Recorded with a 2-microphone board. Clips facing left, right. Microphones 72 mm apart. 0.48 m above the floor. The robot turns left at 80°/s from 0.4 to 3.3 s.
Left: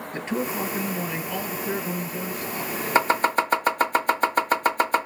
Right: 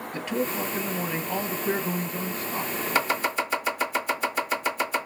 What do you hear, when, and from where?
0.1 s a man speaking: 35° left, 1.3 m; by 2.7 s 150° right, 1.3 m
3.0 s chopping: 25° left (ahead or behind), 1.4 m; by 5.1 s 55° left (ahead or behind), 1.4 m